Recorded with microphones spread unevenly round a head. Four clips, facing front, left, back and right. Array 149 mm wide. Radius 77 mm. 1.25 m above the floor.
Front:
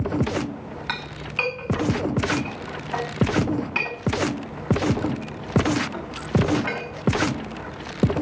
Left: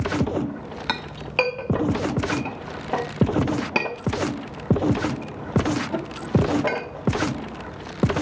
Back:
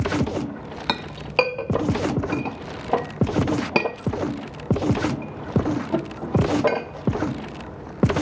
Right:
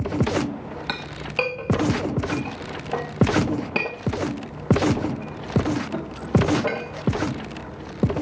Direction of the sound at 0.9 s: Straight behind.